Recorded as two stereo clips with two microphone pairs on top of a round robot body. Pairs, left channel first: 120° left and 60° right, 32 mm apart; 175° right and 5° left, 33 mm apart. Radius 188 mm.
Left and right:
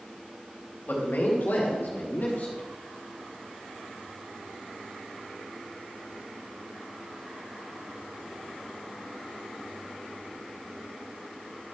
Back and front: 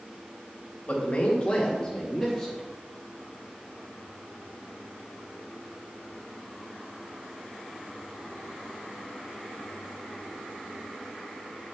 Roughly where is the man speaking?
Behind left.